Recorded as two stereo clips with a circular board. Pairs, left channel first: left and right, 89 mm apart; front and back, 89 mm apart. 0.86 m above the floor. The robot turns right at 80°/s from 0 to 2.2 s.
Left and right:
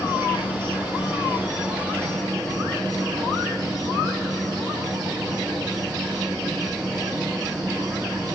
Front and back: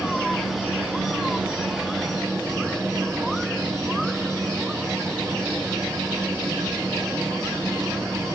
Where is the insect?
50° left, 1.7 m; by 8.3 s 135° right, 1.7 m.